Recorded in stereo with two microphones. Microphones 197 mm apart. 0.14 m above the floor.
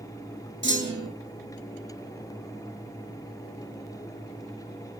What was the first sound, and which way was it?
A clunk, 70° right (ahead or behind).